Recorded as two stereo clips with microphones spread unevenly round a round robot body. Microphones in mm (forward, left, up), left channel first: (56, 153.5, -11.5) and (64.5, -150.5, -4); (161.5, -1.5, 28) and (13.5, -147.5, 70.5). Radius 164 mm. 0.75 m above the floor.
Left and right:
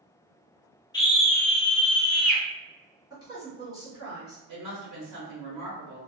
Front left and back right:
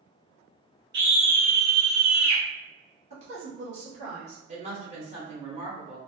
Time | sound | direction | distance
0.9 | a scream | 150° left | 0.6 m
3.1 | a woman speaking | 145° right | 1.0 m
4.5 | a woman speaking | 80° right | 1.0 m